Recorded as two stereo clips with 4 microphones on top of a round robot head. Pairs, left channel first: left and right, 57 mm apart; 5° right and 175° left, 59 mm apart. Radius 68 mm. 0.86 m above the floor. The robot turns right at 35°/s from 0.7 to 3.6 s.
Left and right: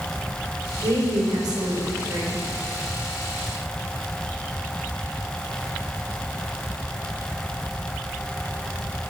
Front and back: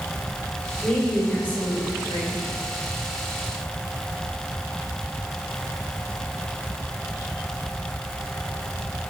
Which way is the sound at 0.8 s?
90° right.